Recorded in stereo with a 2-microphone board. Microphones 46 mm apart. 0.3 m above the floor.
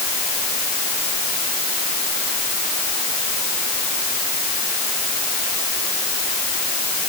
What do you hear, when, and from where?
Only background noise.